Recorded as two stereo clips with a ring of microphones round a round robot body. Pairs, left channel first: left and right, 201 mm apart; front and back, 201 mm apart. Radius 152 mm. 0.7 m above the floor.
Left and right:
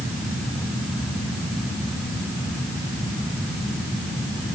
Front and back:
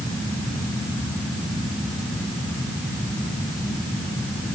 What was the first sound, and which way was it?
Only background noise.